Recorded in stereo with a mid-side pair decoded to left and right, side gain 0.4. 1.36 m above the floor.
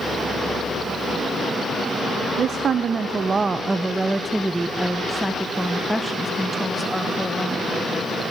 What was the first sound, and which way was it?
A woman speaking, 65° right.